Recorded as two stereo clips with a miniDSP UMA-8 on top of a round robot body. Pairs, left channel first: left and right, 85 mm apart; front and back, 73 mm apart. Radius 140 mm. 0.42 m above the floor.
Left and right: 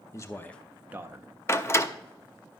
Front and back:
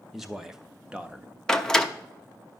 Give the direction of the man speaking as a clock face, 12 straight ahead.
9 o'clock.